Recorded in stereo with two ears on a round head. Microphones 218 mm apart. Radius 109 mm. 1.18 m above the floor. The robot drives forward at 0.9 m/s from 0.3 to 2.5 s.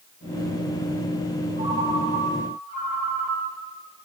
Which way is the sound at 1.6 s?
30° right (ahead or behind).